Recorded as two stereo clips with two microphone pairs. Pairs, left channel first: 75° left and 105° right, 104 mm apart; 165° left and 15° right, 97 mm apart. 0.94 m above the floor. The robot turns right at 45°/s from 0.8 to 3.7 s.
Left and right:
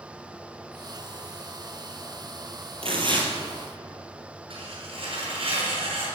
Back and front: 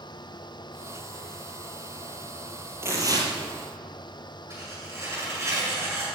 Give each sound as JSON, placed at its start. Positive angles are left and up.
{"t": 2.8, "sound": "tearing paper", "azimuth_deg": -80, "distance_m": 3.5}
{"t": 4.5, "sound": "tearing paper", "azimuth_deg": -75, "distance_m": 7.0}